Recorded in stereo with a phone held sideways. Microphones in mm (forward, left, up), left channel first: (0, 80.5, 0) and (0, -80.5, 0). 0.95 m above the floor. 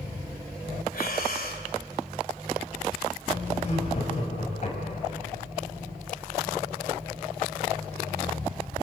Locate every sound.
0.9 s breathing: 70° left (ahead or behind), 2 m
3.6 s laughter: 45° left (ahead or behind), 6 m